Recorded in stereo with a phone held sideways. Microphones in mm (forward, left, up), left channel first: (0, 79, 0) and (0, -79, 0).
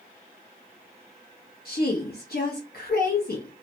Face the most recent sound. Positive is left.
turn(degrees=65)  # may be behind; listen again after turning